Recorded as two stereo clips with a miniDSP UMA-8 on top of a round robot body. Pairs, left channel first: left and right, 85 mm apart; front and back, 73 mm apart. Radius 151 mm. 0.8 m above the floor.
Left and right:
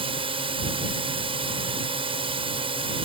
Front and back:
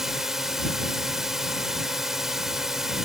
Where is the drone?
95° right.